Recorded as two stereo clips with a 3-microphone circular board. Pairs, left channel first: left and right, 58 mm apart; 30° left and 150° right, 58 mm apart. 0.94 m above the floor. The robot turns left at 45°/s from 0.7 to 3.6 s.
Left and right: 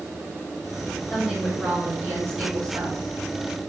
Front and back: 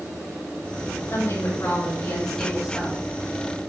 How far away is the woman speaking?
About 5.5 m.